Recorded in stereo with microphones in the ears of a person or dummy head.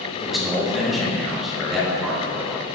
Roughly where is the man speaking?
Centre.